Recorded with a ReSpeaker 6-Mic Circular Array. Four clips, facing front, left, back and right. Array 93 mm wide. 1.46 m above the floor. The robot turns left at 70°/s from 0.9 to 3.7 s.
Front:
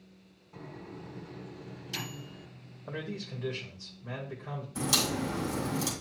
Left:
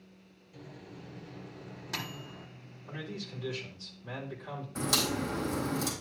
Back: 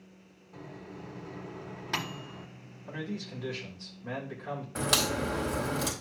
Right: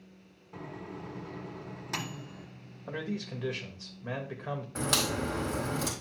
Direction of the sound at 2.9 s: 50° right.